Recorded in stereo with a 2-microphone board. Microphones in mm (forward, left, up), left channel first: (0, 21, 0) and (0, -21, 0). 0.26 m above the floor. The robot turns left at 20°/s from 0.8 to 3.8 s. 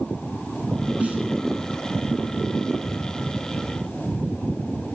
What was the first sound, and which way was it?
A snare drum, 35° right (ahead or behind).